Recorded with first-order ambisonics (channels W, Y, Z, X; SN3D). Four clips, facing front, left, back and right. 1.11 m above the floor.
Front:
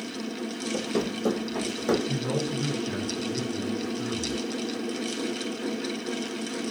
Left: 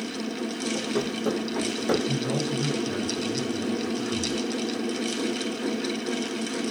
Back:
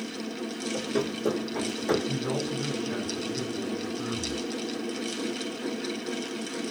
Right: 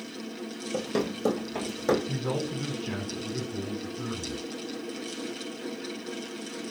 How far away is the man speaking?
About 3 m.